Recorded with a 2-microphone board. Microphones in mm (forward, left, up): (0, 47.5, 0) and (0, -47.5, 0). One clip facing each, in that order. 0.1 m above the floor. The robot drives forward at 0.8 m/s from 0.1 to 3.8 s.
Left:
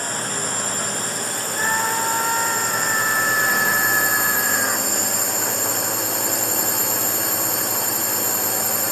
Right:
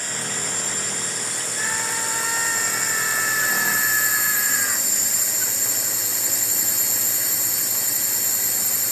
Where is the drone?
45° left (ahead or behind); by 8.9 s 60° left (ahead or behind).